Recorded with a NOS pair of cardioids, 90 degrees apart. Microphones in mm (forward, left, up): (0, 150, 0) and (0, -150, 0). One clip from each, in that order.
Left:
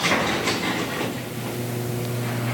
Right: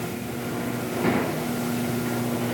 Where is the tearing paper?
I don't hear tearing paper.